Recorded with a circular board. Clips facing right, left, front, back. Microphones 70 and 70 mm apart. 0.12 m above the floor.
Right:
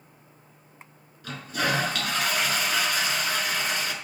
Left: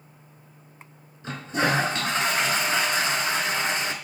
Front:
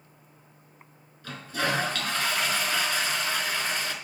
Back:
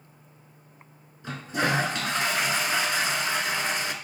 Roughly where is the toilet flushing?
Behind left.